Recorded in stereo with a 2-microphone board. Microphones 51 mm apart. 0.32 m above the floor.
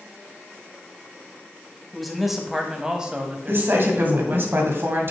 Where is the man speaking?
5° left (ahead or behind), 1.6 m; by 4.5 s 45° right (ahead or behind), 1.5 m.